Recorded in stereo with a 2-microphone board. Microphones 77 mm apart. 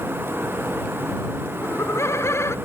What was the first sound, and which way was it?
Laughter, 35° left (ahead or behind).